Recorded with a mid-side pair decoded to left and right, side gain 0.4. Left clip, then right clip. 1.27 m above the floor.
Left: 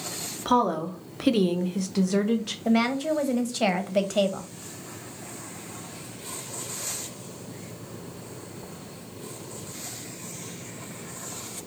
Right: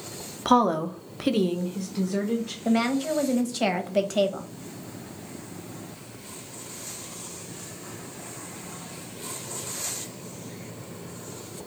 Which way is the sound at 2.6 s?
10° left.